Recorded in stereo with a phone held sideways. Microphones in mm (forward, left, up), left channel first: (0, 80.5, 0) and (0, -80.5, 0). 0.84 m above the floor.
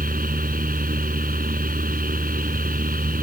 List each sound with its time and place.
0.0 s a fan: 75° right (ahead or behind)